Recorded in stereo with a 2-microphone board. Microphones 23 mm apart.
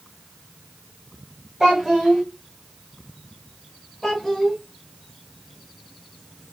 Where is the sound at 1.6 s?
20° right (ahead or behind), 4 m.